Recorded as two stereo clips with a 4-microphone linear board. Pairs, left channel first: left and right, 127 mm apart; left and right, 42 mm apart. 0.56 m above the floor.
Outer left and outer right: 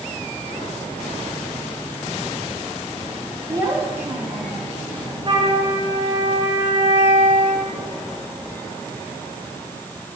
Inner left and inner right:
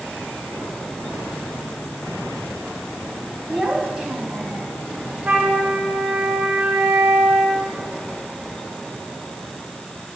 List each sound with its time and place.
3.5 s a child speaking: 25° right (ahead or behind), 3.5 m; by 4.7 s 5° left (ahead or behind), 2 m
5.2 s a flute: 30° right (ahead or behind), 4.5 m